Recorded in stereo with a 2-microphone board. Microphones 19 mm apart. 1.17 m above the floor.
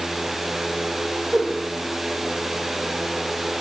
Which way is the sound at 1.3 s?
80° right.